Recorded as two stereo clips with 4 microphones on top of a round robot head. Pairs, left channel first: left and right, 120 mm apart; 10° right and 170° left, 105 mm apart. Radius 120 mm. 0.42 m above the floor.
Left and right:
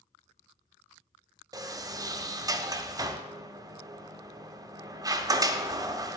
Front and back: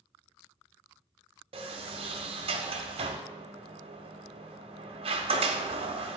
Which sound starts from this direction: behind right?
A sliding door, at 1.5 s.